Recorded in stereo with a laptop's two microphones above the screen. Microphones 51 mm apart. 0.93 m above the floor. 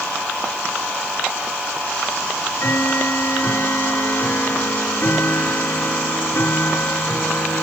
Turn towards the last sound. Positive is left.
turn(degrees=45)  # may be behind; listen again after turning